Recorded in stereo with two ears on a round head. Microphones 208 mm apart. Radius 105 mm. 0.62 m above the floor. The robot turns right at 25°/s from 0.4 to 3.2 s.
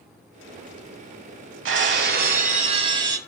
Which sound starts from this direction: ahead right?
Breaking glass, at 1.6 s.